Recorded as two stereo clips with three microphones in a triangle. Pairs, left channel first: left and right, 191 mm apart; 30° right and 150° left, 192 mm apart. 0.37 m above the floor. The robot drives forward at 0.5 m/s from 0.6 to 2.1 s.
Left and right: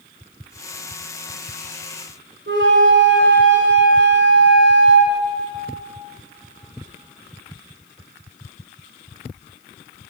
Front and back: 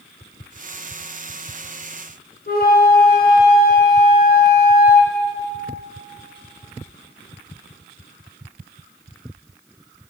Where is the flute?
70° right, 1.6 m.